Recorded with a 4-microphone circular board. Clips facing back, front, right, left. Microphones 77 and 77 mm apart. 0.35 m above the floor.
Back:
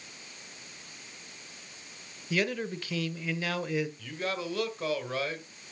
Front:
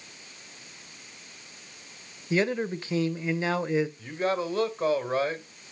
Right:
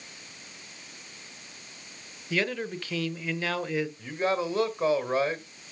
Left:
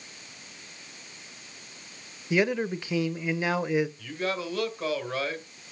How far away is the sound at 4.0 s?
About 1.9 m.